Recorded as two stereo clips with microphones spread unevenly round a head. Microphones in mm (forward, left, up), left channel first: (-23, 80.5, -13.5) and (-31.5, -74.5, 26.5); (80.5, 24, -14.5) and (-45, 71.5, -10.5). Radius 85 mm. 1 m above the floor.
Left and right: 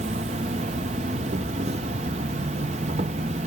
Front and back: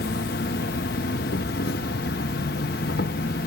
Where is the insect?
35° right.